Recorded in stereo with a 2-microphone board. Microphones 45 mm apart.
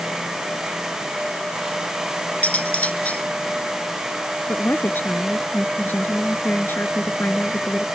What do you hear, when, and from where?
2.4 s cutlery clinking: 35° left (ahead or behind)
4.5 s a woman speaking: 50° left (ahead or behind)